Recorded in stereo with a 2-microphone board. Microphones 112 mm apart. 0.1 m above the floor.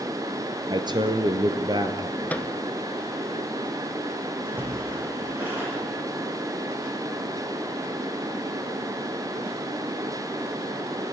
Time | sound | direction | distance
0.7 | a man speaking | 40° right (ahead or behind) | 1.8 m
2.3 | a microwave | 15° left (ahead or behind) | 0.9 m
4.5 | a splash | 15° right (ahead or behind) | 4.5 m